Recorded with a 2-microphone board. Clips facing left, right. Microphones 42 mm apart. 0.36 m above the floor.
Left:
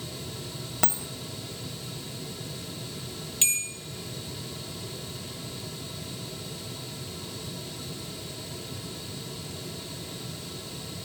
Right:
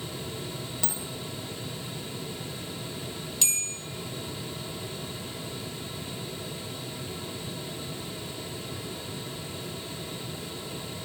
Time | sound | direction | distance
0.8 | a dropped coin | 65° left (ahead or behind) | 0.6 m
3.4 | a bell | 35° left (ahead or behind) | 1.7 m